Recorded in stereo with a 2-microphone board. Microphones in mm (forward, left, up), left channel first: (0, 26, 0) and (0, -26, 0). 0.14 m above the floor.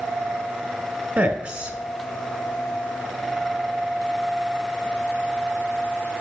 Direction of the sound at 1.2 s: 20° right (ahead or behind).